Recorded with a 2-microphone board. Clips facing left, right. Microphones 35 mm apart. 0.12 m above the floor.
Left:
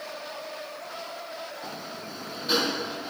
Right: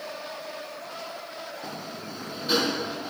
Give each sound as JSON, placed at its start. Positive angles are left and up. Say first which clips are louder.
{"t": 1.6, "sound": "a sliding door", "louder": "right 1 dB", "side_deg": 0}